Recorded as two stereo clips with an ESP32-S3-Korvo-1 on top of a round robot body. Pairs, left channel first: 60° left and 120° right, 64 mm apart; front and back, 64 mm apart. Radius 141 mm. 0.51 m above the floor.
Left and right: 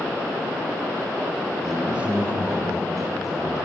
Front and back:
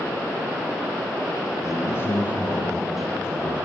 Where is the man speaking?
35° right, 2 m; by 3.6 s 110° right, 3 m.